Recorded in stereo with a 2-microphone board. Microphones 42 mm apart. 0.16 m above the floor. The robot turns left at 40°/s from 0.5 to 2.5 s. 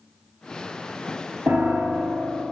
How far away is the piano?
About 1.4 m.